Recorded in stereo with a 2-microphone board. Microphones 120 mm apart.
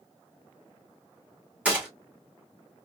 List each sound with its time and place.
1.6 s a gunshot: 10° right (ahead or behind), 2 m